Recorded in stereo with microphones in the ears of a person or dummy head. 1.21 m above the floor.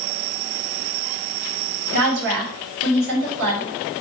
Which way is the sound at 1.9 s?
70° right (ahead or behind).